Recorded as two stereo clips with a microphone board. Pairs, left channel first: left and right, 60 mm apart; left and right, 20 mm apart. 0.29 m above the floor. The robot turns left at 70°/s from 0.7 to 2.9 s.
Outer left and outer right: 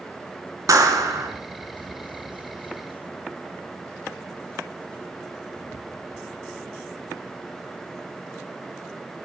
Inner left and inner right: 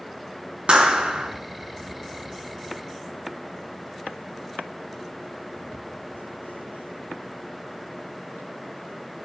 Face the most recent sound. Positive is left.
turn(degrees=130)